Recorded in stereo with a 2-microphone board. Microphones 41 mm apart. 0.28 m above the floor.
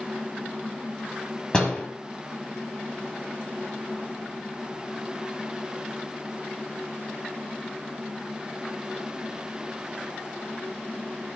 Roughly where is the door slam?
Left.